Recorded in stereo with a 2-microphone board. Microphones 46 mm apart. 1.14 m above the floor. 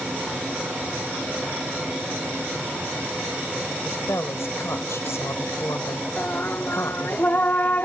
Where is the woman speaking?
80° left.